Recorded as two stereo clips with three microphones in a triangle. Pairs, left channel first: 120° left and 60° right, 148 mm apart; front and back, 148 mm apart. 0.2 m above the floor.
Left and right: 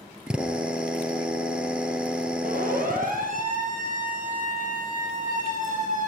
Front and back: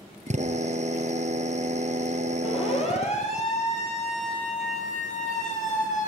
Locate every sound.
0.3 s a drill: 145° right, 2.5 m
2.4 s a siren: 45° right, 8 m; by 6.1 s 30° right, 9.5 m